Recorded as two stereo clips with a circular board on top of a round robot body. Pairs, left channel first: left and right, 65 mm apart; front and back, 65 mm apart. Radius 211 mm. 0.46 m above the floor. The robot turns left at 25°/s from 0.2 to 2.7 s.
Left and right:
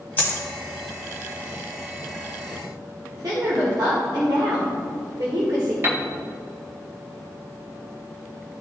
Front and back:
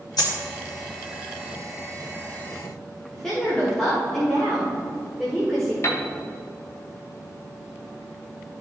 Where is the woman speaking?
85° right, 1.9 m.